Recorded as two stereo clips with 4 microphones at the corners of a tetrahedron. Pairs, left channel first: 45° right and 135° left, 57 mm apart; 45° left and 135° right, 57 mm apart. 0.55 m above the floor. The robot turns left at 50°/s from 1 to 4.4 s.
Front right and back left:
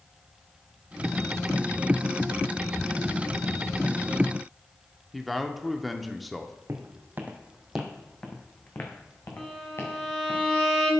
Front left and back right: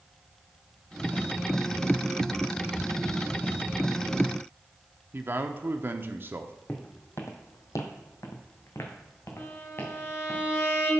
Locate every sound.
5.1 s a man speaking: 135° right, 0.8 m
6.7 s footsteps: 100° left, 1.3 m; by 10.4 s 10° right, 3 m
9.4 s a violin: 35° left, 3.5 m